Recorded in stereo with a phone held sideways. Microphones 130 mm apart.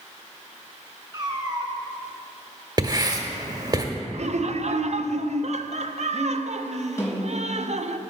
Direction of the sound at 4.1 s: 60° right (ahead or behind).